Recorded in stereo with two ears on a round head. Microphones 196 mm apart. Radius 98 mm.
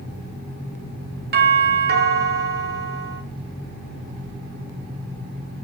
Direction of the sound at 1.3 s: 50° right (ahead or behind).